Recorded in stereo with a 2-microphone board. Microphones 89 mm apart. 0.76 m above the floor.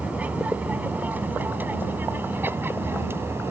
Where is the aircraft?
15° right (ahead or behind); by 3.5 s 25° right (ahead or behind).